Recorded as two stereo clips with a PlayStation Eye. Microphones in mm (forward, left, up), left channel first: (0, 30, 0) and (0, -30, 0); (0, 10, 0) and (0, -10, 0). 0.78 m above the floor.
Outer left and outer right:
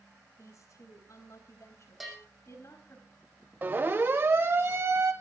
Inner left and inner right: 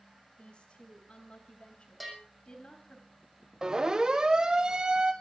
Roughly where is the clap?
I don't hear a clap.